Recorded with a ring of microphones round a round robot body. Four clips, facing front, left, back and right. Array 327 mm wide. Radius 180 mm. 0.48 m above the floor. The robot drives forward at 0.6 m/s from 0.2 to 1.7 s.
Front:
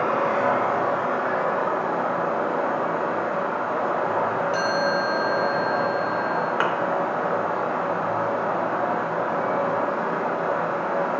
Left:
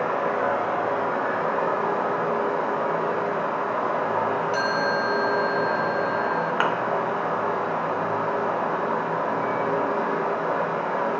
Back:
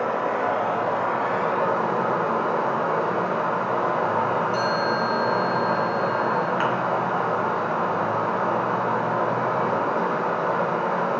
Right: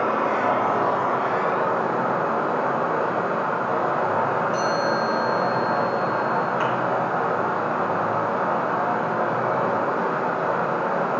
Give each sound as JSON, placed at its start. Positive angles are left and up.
{"t": 0.0, "sound": "running water", "azimuth_deg": -50, "distance_m": 0.7}
{"t": 4.5, "sound": "a chime", "azimuth_deg": 55, "distance_m": 2.0}
{"t": 6.6, "sound": "a thud", "azimuth_deg": 70, "distance_m": 0.6}